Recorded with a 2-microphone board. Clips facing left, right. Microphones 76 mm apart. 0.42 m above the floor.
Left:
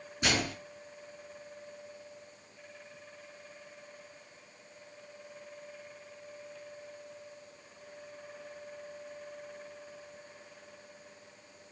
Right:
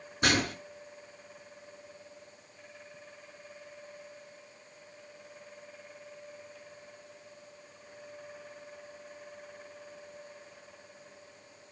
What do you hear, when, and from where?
0.2 s a gunshot: 50° right (ahead or behind), 5.5 m